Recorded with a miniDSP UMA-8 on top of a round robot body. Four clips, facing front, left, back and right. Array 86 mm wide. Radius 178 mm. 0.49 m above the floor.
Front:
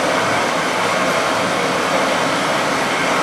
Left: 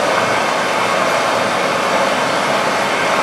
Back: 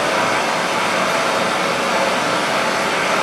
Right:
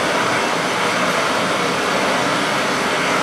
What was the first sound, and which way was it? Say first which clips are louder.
Running water: left 3 dB, front 1 dB; 80° left.